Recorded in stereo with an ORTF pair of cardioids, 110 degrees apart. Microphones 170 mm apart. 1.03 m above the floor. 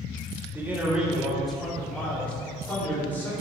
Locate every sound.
0.5 s a man speaking: 15° right, 1.8 m; by 3.3 s 15° left, 3.5 m